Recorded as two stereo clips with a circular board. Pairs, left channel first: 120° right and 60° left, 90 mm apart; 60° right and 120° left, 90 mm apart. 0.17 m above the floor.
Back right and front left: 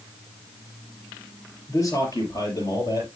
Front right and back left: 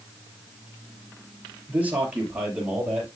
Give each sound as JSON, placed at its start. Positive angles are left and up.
{"t": 1.7, "sound": "a man speaking", "azimuth_deg": -165, "distance_m": 4.0}